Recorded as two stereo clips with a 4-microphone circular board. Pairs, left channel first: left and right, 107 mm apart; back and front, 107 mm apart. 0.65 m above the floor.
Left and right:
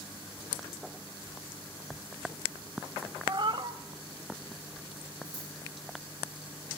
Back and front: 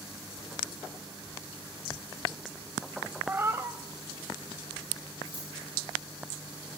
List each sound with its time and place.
3.3 s a cat meowing: 65° right, 0.6 m
5.2 s scissors: 40° right, 6.5 m